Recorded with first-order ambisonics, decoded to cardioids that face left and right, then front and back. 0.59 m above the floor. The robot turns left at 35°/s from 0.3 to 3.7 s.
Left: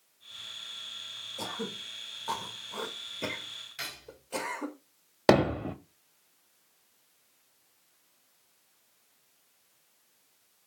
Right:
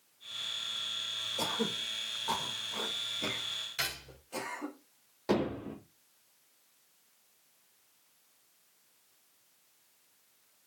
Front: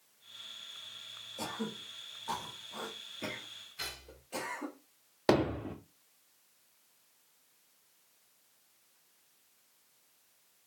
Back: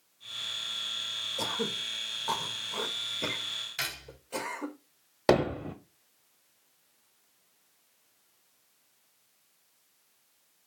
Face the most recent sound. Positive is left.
turn(degrees=100)